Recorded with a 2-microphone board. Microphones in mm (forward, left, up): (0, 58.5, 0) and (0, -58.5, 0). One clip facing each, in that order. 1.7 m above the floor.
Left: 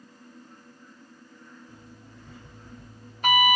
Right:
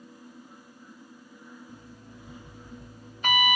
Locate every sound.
1.7 s an alarm clock: 70° left (ahead or behind), 1.9 m